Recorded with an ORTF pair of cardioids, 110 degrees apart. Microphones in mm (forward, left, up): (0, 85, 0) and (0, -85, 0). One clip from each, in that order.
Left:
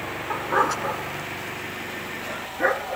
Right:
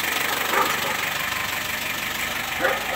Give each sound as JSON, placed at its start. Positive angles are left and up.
{"t": 0.3, "sound": "a dog barking", "azimuth_deg": 15}